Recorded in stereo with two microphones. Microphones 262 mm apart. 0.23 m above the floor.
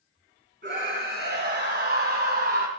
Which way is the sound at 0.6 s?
40° right (ahead or behind).